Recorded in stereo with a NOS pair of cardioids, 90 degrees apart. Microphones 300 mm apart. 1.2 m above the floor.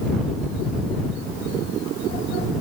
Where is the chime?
No chime in this recording.